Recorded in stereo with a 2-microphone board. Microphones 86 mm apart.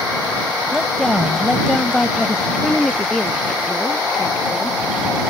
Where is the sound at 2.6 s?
10° left (ahead or behind).